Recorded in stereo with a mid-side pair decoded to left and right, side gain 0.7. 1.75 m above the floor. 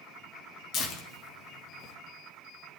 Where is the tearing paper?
50° left, 3.5 m.